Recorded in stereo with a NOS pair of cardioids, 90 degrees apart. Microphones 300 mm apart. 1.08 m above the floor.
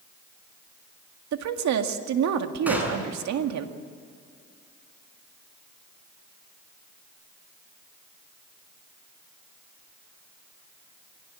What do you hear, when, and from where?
1.3 s a woman speaking: 70° right, 2 m
2.7 s a gunshot: 5° right, 6.5 m